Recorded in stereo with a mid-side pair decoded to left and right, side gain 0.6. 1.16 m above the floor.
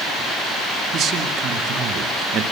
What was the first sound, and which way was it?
A man speaking, 50° right.